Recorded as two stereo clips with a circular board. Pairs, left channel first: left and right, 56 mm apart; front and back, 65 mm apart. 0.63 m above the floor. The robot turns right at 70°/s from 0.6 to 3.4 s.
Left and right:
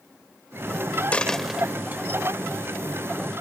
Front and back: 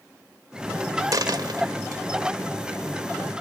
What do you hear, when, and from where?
1.1 s a dropped coin: 155° left; by 2.0 s 140° right